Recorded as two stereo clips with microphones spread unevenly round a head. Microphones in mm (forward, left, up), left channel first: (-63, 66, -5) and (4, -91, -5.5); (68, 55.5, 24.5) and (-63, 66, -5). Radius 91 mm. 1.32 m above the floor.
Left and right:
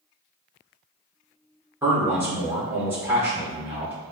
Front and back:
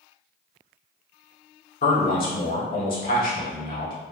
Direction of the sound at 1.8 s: 10° left.